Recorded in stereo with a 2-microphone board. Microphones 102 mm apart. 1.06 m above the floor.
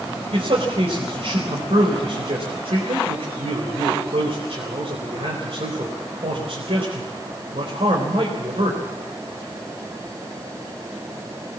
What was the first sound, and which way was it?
A man speaking, 75° right (ahead or behind).